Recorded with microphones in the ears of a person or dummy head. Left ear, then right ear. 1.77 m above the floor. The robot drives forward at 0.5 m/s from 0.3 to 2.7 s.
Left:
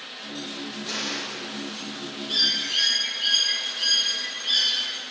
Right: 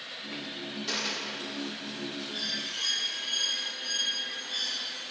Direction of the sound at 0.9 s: 40° right (ahead or behind).